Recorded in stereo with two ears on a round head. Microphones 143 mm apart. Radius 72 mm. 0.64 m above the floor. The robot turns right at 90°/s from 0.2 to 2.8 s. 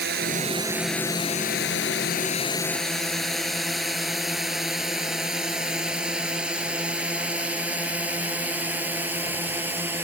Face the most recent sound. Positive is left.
turn(degrees=-15)  # may be behind; listen again after turning